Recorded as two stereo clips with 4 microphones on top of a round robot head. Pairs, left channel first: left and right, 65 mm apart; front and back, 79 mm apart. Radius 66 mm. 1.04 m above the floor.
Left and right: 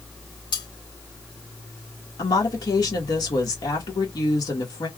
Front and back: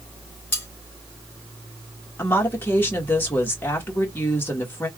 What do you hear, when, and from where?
0.5 s cutlery clinking: 65° left, 1.8 m
2.2 s a woman speaking: 65° left, 1.5 m